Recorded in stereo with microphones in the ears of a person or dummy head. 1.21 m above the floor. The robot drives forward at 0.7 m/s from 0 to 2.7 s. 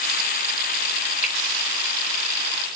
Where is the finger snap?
30° left (ahead or behind), 1.1 m; by 1.4 s 35° left (ahead or behind), 1.1 m.